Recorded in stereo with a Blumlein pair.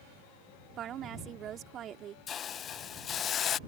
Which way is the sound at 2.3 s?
25° left.